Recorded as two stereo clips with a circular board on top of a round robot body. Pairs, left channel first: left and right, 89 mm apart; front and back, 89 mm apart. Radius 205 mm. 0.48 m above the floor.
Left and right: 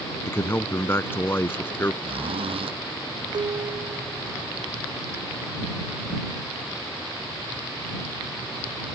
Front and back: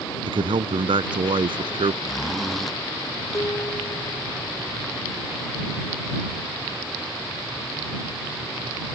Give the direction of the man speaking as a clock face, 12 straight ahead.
7 o'clock.